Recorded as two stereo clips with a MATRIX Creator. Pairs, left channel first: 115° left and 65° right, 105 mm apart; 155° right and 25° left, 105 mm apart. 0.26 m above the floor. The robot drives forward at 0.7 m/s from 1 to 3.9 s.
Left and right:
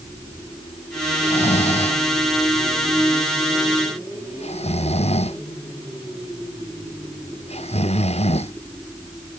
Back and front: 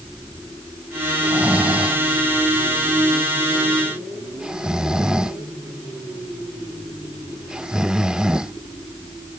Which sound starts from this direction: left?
Snoring, at 1.2 s.